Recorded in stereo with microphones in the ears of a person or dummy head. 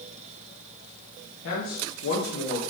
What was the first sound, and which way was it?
A man speaking, 75° left (ahead or behind).